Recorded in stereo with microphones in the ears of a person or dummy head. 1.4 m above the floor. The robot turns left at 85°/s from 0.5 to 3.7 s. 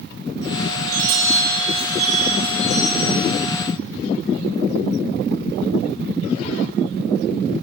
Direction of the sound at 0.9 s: 45° right.